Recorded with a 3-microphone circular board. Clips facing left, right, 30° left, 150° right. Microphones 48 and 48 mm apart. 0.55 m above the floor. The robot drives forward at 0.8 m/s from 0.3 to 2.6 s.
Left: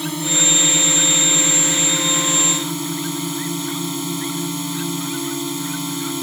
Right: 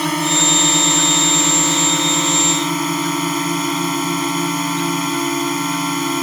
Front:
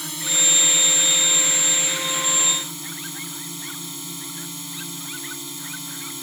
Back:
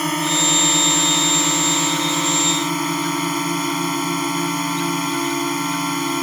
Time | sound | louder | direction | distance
0.0 | a drone | right 5 dB, back 8 dB | 115° right | ?